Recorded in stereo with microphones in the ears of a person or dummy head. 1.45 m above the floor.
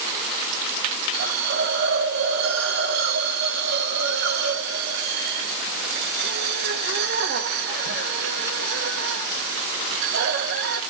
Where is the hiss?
55° right (ahead or behind), 1.6 m.